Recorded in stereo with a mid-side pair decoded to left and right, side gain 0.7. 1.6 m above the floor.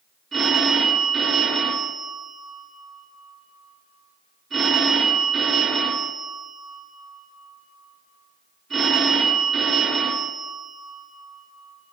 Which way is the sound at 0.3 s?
30° right.